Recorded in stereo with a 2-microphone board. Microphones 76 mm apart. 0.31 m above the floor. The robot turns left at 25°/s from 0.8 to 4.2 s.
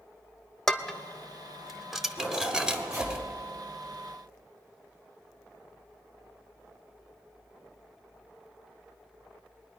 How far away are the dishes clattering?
About 0.6 m.